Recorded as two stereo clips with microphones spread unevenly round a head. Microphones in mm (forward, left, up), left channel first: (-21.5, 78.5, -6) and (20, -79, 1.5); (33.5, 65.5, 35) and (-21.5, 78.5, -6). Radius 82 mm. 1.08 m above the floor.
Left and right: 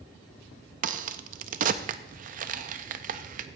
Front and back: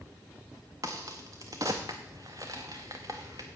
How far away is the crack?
About 0.5 m.